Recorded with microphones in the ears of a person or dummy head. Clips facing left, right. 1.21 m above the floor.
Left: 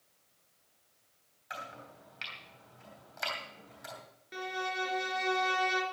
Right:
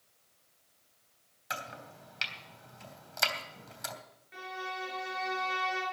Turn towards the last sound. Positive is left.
turn(degrees=65)  # may be behind; listen again after turning